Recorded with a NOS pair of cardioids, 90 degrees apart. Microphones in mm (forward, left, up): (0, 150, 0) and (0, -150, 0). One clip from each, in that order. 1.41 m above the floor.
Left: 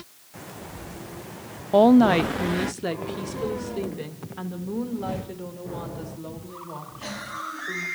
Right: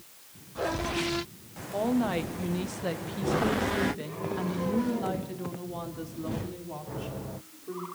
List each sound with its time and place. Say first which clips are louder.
1.7 s a woman speaking: left 12 dB; 70° left, 0.5 m; by 7.8 s straight ahead, 4 m